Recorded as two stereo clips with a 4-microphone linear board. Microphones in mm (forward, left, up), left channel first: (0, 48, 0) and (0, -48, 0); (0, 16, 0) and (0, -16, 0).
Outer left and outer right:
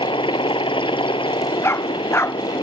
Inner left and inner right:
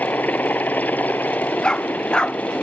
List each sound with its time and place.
0.0 s a helicopter: 65° left (ahead or behind)
1.6 s a dog barking: 25° left (ahead or behind)